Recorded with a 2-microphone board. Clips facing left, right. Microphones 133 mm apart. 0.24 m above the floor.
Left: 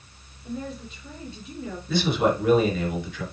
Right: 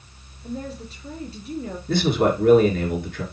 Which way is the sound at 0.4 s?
35° right (ahead or behind).